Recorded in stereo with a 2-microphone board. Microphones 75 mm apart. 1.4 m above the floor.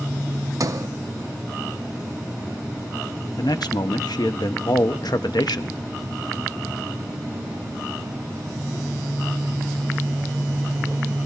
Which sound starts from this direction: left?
A man speaking, at 3.4 s.